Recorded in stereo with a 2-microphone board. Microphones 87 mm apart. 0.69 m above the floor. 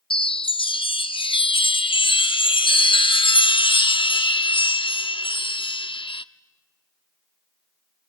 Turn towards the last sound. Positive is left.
turn(degrees=75)  # may be behind; listen again after turning